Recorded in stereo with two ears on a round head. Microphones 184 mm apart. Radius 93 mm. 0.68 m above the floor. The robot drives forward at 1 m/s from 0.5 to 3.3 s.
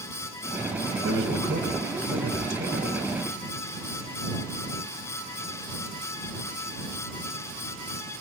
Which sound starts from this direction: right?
A man speaking, at 1.0 s.